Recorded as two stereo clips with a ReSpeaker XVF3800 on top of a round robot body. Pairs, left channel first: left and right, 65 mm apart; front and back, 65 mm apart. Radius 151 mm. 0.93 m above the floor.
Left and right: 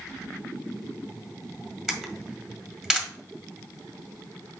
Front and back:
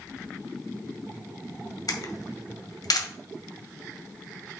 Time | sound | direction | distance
1.9 | a camera shutter | 10° right | 1.7 m